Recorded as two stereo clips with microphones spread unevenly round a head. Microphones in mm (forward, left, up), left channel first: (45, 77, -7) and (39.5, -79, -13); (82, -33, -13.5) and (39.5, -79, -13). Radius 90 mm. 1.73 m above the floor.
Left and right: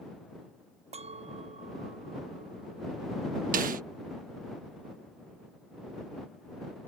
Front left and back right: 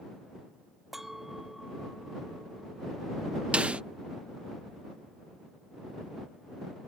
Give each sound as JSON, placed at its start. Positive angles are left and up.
{"t": 0.9, "sound": "a clink", "azimuth_deg": -45}
{"t": 3.5, "sound": "a snare drum", "azimuth_deg": -60}